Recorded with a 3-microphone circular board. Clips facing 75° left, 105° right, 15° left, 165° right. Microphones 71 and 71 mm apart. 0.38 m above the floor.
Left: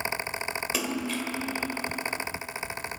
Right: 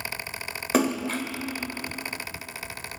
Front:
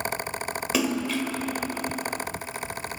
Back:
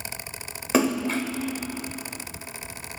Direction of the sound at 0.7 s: 125° right.